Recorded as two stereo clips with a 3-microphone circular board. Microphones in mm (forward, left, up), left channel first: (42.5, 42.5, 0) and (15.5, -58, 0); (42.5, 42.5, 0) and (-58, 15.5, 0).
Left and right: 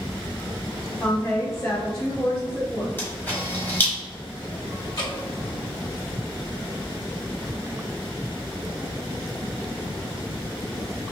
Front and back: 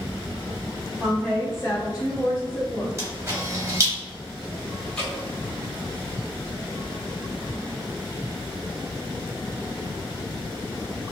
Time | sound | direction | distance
1.0 | a woman speaking | 125° left | 0.9 m
3.0 | a camera shutter | 140° left | 1.4 m
5.0 | dripping | 85° left | 1.6 m